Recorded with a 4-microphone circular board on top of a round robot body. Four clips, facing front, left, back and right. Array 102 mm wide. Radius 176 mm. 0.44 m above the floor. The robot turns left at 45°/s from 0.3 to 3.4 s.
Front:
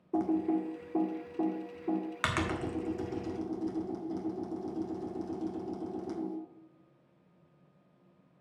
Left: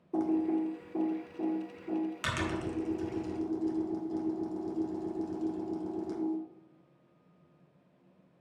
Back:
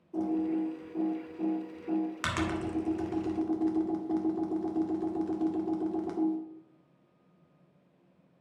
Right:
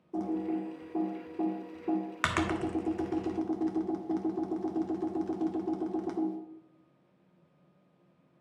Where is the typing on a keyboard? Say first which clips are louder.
Left 3 dB, even; 15° left, 2 m; by 6.4 s 125° right, 2 m.